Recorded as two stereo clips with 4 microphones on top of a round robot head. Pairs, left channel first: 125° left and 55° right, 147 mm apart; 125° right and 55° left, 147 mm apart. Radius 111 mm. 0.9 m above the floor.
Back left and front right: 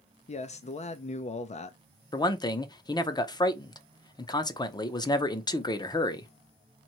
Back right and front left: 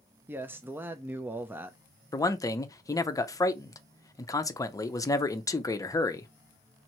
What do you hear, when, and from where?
0.3 s a man speaking: 125° left, 0.6 m
2.1 s a man speaking: 175° left, 0.7 m